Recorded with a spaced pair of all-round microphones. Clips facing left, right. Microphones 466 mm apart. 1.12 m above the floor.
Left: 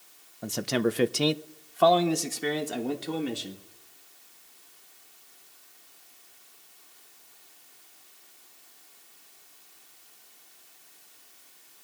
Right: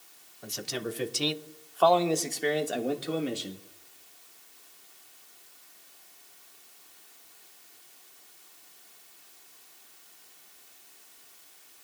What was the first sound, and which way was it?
A man speaking, 65° left (ahead or behind).